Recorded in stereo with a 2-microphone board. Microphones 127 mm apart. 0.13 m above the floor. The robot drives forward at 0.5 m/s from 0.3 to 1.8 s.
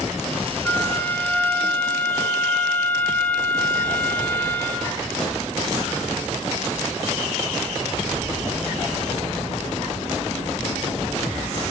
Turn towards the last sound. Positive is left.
turn(degrees=15)  # may be behind; listen again after turning